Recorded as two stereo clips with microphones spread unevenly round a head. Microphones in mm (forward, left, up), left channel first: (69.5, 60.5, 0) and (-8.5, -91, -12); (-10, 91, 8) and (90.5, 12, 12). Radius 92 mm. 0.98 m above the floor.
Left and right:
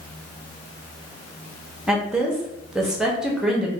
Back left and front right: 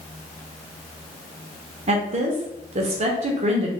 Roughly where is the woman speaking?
Ahead right.